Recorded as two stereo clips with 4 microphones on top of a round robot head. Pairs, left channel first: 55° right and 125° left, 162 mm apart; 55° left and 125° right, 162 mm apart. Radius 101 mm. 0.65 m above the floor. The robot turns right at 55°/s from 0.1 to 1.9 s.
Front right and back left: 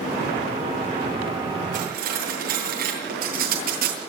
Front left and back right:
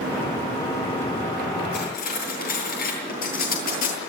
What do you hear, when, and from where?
1.7 s cutlery clinking: 80° left, 9.5 m; by 4.0 s 90° left, 9.5 m